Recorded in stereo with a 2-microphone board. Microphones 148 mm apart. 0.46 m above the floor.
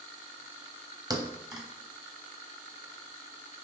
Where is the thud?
30° right (ahead or behind), 0.8 m.